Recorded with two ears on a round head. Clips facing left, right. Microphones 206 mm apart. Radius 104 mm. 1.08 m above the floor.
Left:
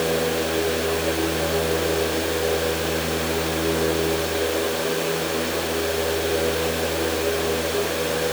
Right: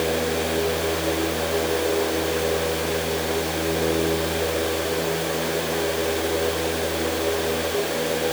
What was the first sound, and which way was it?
Only background noise.